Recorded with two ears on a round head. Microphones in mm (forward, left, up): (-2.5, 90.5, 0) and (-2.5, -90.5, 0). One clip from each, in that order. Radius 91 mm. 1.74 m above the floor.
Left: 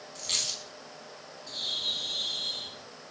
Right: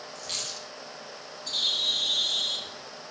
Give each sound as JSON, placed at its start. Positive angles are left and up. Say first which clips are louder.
{"t": 0.1, "sound": "a dropped coin", "louder": "left 4 dB", "side_deg": 20, "distance_m": 5.0}
{"t": 1.5, "sound": "a bird", "louder": "right 6 dB", "side_deg": -70, "distance_m": 3.0}